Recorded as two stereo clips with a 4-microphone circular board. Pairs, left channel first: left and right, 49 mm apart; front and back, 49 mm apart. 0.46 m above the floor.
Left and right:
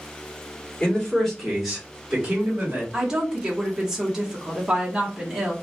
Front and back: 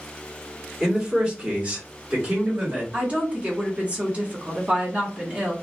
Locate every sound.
0.8 s a man speaking: 125° left, 1.1 m; by 2.8 s 135° right, 1.5 m
2.9 s a woman speaking: 155° right, 1.0 m